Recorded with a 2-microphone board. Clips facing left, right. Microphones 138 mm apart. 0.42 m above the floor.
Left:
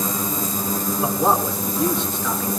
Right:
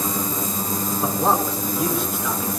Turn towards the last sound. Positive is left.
turn(degrees=-10)  # may be behind; listen again after turning